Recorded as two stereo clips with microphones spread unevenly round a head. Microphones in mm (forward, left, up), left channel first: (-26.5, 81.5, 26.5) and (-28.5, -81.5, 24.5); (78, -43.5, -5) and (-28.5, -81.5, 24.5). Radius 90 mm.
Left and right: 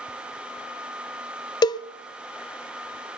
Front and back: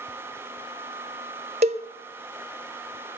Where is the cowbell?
155° left, 0.6 m.